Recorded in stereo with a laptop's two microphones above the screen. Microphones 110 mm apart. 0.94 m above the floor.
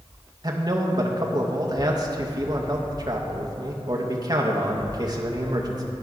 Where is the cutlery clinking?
No cutlery clinking in this recording.